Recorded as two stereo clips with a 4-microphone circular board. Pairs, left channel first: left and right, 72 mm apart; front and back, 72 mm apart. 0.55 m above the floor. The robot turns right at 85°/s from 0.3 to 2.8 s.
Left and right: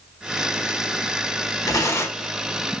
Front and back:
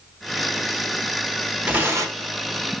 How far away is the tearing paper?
About 0.9 m.